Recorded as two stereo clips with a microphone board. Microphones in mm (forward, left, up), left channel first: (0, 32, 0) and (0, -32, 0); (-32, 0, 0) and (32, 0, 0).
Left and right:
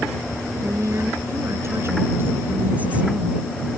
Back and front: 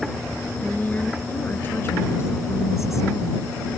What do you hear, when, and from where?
0.6 s a woman speaking: 115° right; by 3.5 s 170° right